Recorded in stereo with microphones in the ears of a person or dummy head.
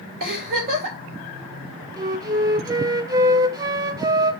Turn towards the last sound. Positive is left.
turn(degrees=-20)  # may be behind; listen again after turning